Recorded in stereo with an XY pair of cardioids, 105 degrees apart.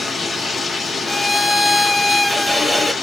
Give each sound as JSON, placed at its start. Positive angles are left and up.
{"t": 0.0, "sound": "running water", "azimuth_deg": 35, "distance_m": 0.7}
{"t": 1.1, "sound": "a violin", "azimuth_deg": 10, "distance_m": 0.5}